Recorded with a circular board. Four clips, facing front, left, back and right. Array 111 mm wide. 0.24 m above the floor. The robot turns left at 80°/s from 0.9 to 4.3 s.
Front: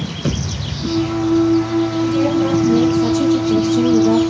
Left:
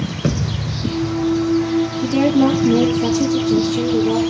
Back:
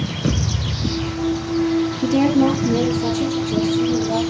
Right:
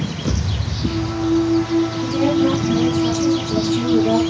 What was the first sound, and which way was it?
A thud, 105° left.